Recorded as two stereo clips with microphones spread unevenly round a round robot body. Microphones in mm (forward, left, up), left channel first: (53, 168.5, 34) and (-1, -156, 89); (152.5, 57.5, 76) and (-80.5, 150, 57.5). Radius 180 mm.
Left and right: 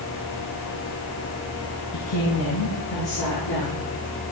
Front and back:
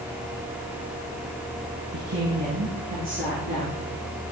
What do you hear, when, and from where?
1.9 s a woman speaking: 130° left, 8 m; by 3.9 s 115° left, 9.5 m